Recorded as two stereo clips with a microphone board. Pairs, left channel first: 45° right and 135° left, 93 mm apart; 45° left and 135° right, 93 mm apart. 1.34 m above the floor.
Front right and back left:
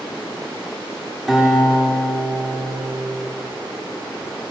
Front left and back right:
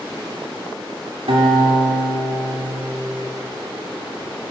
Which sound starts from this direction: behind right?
A guitar, at 1.3 s.